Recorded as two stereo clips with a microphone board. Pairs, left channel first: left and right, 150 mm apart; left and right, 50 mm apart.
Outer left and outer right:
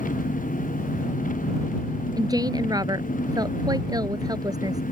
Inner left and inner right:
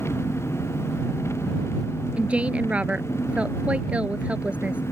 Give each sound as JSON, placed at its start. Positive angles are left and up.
{"t": 0.0, "sound": "an engine running", "side_deg": 60}
{"t": 2.2, "sound": "a woman speaking", "side_deg": -25}